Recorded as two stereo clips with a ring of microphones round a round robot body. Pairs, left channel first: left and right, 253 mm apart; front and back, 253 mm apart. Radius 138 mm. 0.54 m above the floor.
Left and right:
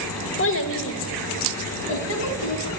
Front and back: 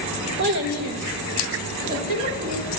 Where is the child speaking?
130° left, 1.3 m; by 2.7 s 120° left, 3.5 m.